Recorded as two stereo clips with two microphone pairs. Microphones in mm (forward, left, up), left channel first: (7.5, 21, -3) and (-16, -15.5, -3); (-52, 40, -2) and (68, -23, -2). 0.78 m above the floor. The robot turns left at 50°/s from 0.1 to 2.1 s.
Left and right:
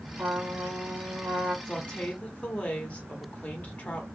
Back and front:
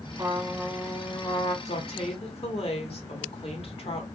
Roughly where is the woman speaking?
Behind left.